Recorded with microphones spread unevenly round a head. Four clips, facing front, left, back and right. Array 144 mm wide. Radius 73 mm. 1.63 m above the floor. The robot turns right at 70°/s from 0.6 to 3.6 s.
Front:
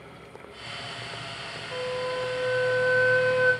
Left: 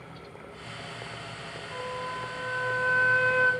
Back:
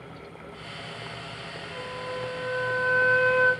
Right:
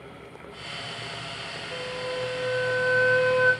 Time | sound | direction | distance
1.7 | a flute | 20° left | 2 m